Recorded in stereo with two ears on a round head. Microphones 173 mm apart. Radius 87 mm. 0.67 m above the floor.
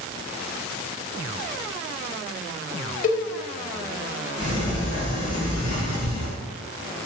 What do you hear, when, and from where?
3.0 s a cowbell: 40° left (ahead or behind), 0.6 m
4.4 s a sliding door: 40° left (ahead or behind), 1.2 m